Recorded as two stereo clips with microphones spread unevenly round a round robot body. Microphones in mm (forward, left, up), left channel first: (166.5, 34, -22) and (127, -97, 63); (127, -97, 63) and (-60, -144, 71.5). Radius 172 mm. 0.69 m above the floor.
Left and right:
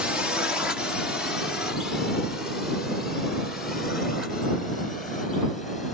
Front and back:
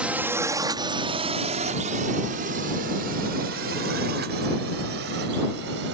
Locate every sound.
0.0 s a drone: 110° left; by 5.9 s 155° left